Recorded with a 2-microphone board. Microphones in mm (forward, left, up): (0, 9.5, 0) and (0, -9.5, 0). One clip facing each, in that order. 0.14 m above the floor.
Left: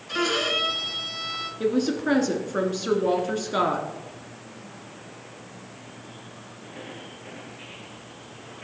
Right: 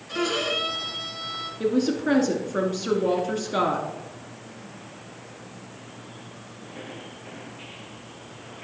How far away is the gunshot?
I don't hear a gunshot.